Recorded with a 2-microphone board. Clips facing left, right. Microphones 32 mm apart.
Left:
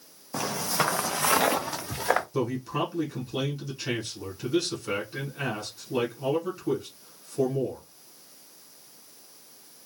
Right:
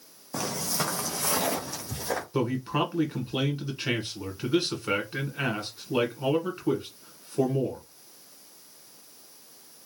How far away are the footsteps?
About 0.6 m.